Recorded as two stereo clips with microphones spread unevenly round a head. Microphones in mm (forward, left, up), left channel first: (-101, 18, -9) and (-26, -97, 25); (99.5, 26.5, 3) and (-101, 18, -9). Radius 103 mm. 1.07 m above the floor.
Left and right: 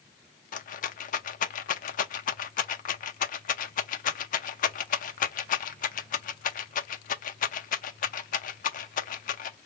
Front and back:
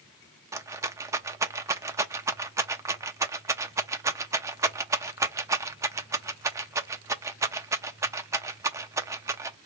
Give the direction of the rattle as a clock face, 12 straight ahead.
8 o'clock.